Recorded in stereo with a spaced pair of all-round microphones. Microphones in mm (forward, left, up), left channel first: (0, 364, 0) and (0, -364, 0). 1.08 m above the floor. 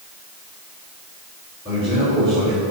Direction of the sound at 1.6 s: 5° right (ahead or behind).